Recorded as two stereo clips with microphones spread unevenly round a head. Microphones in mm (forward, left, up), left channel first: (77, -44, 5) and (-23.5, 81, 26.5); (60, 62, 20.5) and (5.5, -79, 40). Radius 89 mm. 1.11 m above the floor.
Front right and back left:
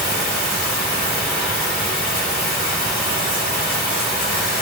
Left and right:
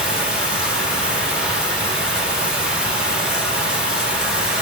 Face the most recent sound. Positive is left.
turn(degrees=-25)